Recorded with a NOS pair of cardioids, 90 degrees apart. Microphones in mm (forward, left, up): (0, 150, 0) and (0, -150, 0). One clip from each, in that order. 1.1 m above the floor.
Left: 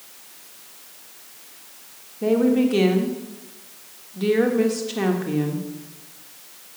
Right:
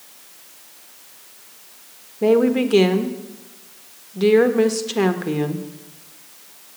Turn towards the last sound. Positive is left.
turn(degrees=-35)